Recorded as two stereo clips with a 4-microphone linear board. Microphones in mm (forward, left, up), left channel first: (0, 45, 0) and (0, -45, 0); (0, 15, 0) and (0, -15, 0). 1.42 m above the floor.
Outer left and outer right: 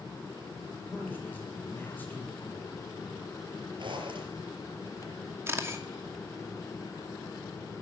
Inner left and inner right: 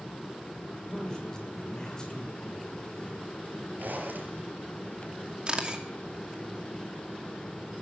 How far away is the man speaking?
About 6 m.